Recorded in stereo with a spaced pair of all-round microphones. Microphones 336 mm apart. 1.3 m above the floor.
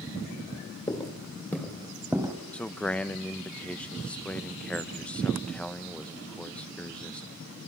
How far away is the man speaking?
About 0.7 m.